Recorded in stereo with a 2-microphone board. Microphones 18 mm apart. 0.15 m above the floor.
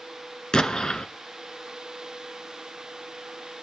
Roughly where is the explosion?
Left.